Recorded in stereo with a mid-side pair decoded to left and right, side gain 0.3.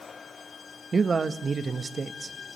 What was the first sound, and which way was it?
A man speaking, 50° right.